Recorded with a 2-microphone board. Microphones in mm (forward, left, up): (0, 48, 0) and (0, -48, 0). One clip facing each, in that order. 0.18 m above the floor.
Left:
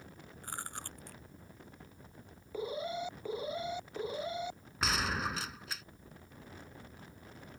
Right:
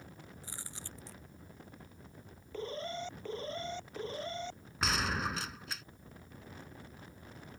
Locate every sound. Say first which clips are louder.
0.4 s chewing: left 11 dB; 55° left (ahead or behind)
2.5 s an alarm: left 2 dB; 10° left (ahead or behind)
4.8 s a gunshot: even; centre (ahead or behind)